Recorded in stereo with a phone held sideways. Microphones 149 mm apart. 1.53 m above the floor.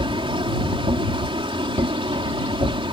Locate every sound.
0.0 s a machine running: 35° right (ahead or behind)